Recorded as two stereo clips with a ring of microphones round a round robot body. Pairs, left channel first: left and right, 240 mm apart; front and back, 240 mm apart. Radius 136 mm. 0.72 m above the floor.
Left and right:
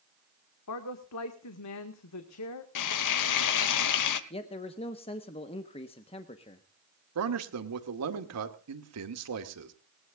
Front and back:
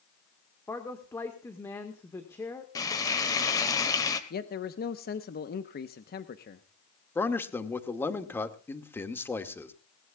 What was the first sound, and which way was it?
A man speaking, 80° left.